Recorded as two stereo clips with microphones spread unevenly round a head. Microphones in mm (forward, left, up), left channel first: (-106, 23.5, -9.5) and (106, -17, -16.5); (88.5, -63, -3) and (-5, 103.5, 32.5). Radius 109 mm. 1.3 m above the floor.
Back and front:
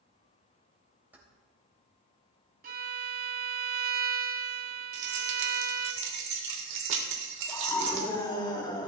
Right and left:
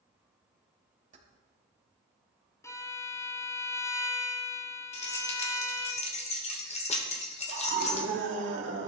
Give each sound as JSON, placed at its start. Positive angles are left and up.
{"t": 1.1, "sound": "keys jangling", "azimuth_deg": 70, "distance_m": 4.0}
{"t": 2.6, "sound": "a violin", "azimuth_deg": 20, "distance_m": 1.6}
{"t": 4.9, "sound": "keys jangling", "azimuth_deg": -5, "distance_m": 3.0}
{"t": 7.5, "sound": "a scream", "azimuth_deg": 100, "distance_m": 3.0}